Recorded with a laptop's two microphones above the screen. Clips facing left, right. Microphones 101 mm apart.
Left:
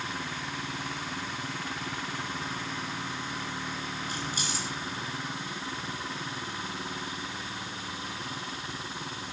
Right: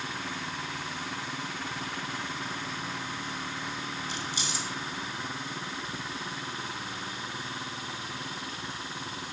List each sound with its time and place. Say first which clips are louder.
4.1 s keys jangling: left 1 dB; 45° left (ahead or behind), 7 m